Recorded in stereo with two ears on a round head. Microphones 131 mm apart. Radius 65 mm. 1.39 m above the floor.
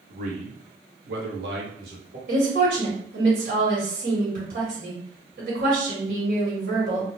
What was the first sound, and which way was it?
A man speaking, 50° right (ahead or behind).